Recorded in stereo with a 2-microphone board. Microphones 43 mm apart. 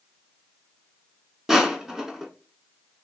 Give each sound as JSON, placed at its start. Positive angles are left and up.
{"t": 1.5, "sound": "crushing", "side_deg": -10, "distance_m": 0.8}